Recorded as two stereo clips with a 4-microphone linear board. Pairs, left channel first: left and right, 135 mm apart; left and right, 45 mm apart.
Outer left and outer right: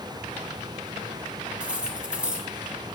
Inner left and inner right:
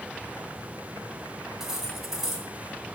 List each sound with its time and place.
1.6 s cutlery clinking: 10° right (ahead or behind), 2 m